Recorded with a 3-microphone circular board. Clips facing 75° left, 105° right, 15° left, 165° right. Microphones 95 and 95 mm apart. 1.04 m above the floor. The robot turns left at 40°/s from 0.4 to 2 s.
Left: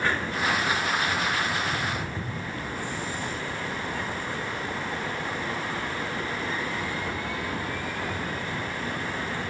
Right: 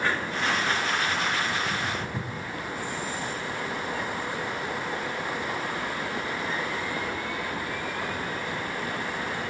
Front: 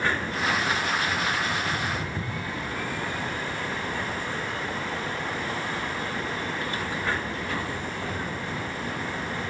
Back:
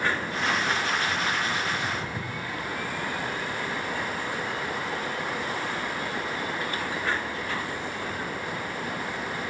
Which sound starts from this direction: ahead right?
Footsteps, at 1.5 s.